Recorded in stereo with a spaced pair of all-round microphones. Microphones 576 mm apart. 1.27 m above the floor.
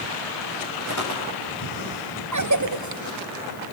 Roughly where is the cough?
Right.